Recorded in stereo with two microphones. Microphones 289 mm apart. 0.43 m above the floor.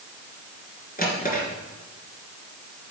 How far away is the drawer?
About 3 m.